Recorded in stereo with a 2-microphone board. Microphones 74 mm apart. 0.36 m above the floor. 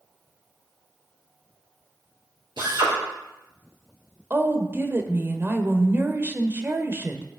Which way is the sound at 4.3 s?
30° right (ahead or behind).